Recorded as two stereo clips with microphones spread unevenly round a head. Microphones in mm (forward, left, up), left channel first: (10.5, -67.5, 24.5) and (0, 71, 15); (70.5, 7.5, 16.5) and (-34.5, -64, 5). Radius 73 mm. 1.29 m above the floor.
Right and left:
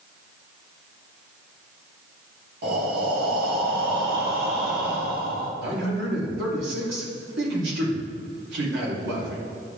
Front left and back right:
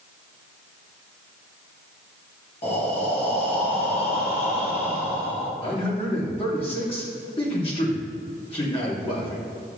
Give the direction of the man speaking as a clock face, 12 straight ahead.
9 o'clock.